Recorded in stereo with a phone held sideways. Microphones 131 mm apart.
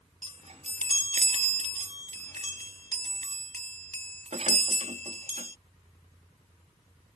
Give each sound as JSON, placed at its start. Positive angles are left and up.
{"t": 0.2, "sound": "a chime", "side_deg": -60}